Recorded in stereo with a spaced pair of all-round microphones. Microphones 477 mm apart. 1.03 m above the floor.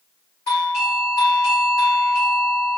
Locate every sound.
0.5 s a doorbell: 65° left (ahead or behind), 3.5 m